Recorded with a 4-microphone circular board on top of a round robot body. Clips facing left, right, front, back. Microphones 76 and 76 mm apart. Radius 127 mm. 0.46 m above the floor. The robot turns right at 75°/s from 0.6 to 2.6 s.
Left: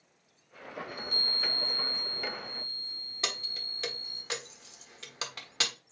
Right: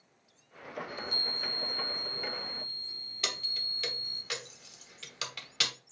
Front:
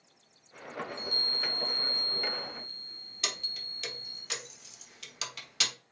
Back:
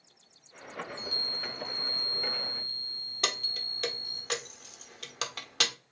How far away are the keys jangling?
About 1.1 m.